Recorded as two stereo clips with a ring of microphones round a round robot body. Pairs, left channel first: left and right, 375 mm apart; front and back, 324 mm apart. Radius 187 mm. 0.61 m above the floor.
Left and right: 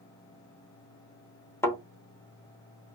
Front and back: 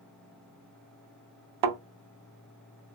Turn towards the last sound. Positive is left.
turn(degrees=175)